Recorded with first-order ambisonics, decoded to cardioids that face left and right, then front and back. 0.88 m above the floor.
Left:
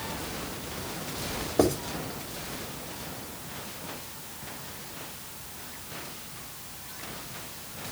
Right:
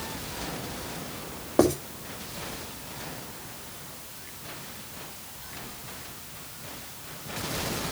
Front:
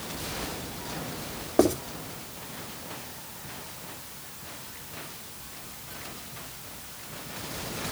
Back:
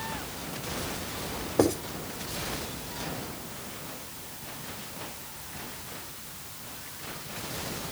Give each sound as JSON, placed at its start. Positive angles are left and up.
{"t": 1.6, "sound": "writing", "azimuth_deg": -50, "distance_m": 3.0}